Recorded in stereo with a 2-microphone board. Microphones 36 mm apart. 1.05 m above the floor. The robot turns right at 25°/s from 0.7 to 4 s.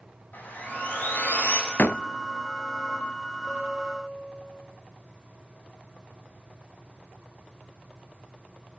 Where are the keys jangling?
I don't hear keys jangling.